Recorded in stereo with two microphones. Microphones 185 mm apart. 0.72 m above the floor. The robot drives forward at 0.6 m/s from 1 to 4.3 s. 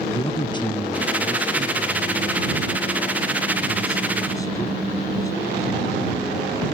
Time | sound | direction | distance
0.1 | a man speaking | 25° left (ahead or behind) | ?